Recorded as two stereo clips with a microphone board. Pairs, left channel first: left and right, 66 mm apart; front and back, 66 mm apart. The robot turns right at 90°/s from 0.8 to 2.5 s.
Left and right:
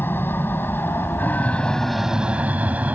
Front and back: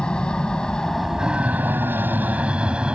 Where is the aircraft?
70° left; by 3.0 s 125° right.